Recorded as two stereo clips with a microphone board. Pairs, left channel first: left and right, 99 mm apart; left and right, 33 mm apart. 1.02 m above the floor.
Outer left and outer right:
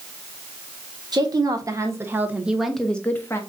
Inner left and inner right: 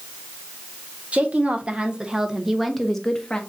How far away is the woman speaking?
About 1.3 m.